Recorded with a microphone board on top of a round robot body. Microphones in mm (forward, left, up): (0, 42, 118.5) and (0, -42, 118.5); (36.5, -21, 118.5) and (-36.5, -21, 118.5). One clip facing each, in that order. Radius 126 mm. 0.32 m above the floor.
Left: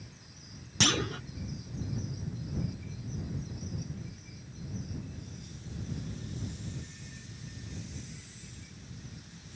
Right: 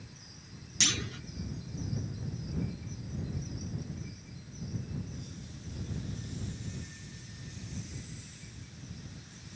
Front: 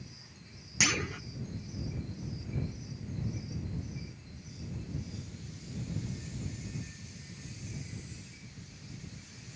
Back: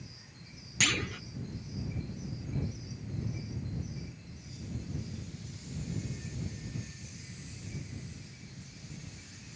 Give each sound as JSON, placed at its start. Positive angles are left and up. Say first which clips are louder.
{"t": 0.8, "sound": "a clunk", "louder": "left 7 dB, even", "azimuth_deg": 75}